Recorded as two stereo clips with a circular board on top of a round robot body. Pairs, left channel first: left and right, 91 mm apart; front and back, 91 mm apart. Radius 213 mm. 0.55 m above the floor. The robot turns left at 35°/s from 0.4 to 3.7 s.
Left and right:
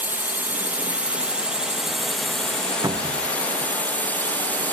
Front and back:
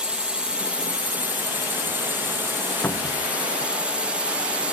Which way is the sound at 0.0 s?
120° right.